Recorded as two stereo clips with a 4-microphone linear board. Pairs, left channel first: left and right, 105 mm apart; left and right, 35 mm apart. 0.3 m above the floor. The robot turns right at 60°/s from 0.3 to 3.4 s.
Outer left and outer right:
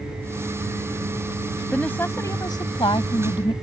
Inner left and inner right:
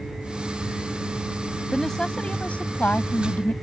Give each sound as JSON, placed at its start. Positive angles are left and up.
{"t": 1.7, "sound": "a woman speaking", "azimuth_deg": 10}